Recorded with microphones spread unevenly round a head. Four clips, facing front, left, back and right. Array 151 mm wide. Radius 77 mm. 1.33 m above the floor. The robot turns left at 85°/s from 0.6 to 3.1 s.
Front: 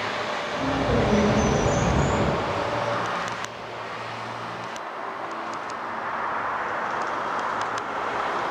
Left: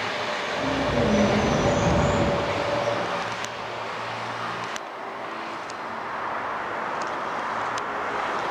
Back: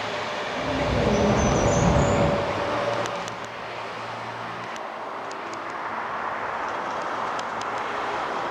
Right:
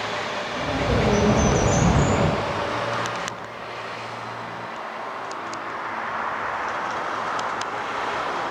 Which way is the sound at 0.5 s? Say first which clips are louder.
Right 1 dB, front 2 dB; 10° right.